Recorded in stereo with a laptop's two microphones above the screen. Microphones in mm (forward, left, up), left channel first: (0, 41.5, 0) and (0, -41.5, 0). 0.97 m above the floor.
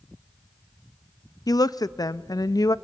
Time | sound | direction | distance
1.5 | a woman speaking | 50° left (ahead or behind) | 0.5 m